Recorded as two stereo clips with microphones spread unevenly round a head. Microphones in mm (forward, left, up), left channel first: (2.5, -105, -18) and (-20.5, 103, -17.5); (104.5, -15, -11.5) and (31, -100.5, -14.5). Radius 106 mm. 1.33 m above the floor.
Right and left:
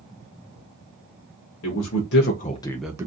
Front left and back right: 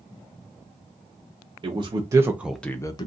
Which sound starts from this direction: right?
A man speaking, at 1.6 s.